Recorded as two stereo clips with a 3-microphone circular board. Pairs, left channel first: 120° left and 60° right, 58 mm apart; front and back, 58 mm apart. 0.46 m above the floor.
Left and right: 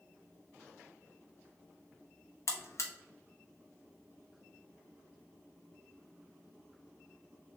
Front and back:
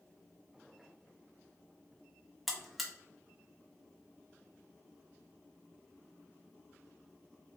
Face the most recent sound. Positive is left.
turn(degrees=90)